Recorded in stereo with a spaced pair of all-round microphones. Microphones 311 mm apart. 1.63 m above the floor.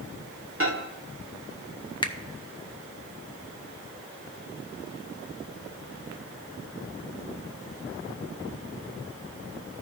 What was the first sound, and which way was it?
A microwave, 45° right (ahead or behind).